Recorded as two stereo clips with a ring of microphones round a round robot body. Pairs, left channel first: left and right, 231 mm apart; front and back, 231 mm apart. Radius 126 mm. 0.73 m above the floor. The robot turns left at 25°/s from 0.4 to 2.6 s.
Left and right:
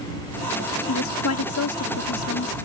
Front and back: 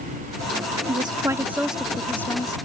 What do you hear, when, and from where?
0.9 s a woman speaking: 115° left; by 2.5 s 75° left